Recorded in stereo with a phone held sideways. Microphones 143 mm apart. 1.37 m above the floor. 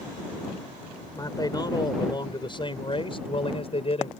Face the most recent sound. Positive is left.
turn(degrees=45)  # may be behind; listen again after turning